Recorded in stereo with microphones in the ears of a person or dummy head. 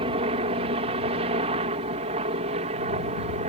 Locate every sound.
0.0 s a helicopter: 30° right (ahead or behind); by 3.5 s 35° right (ahead or behind)